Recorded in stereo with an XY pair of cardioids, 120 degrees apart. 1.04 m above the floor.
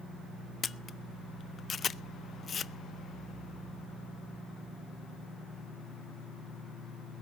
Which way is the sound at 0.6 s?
35° left.